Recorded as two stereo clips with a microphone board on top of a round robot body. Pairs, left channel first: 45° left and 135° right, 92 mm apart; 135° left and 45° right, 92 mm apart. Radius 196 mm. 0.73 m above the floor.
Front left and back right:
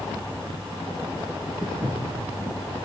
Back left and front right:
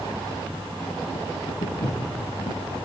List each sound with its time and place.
1.6 s footsteps: 125° left, 4 m